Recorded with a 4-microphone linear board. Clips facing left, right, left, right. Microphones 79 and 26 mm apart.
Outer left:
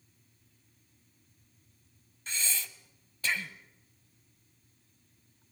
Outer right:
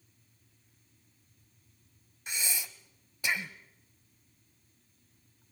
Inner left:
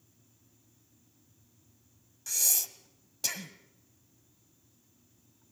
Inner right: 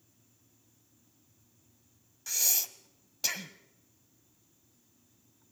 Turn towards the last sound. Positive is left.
turn(degrees=-15)  # may be behind; listen again after turning